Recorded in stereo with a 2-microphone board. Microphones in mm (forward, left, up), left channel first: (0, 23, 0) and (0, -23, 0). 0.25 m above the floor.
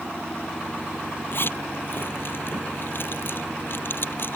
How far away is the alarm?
I don't hear an alarm.